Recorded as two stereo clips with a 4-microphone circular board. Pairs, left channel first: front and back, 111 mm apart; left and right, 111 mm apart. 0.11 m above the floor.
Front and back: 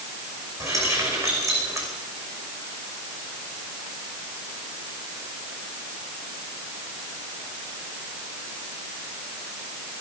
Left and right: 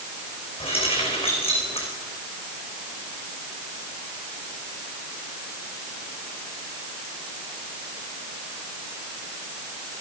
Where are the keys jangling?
120° left, 5.5 m.